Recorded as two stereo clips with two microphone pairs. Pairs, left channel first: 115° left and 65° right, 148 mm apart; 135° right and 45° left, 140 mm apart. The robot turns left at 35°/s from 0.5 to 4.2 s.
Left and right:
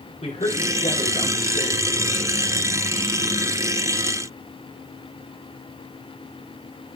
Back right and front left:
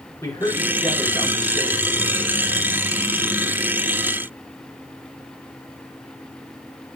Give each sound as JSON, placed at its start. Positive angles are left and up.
{"t": 0.2, "sound": "a man speaking", "azimuth_deg": 155, "distance_m": 5.0}